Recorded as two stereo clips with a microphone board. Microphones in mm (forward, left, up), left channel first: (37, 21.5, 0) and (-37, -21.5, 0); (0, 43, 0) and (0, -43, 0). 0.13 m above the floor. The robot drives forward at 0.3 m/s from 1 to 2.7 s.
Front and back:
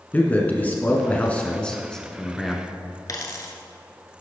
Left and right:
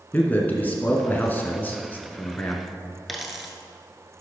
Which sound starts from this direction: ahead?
A dropped coin, at 3.1 s.